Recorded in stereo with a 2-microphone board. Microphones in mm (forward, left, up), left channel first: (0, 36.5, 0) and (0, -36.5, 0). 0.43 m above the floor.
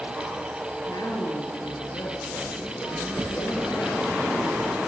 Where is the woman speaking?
70° left (ahead or behind), 7.5 m.